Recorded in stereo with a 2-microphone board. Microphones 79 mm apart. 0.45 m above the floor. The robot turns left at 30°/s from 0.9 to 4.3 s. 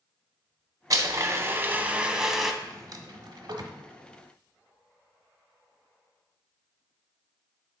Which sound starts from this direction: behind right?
A blender, at 0.9 s.